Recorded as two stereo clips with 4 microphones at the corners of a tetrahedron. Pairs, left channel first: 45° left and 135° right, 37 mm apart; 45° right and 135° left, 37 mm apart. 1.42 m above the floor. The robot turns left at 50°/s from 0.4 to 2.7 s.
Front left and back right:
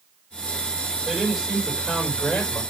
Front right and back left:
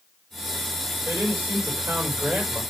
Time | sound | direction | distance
1.1 | a man speaking | 165° left | 4.5 m